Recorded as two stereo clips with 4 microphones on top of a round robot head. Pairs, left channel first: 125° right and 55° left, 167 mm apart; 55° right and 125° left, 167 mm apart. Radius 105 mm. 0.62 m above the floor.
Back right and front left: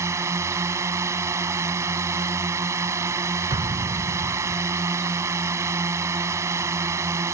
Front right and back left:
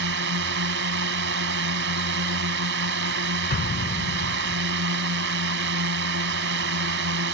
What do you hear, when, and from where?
0.0 s a drone: 125° left
3.5 s an explosion: 10° right